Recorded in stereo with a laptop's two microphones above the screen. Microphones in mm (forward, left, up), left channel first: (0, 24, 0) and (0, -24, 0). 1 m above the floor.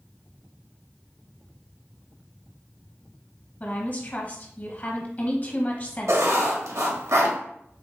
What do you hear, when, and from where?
3.6 s a woman speaking: 40° left (ahead or behind), 1.3 m
6.1 s writing: 90° right, 1.3 m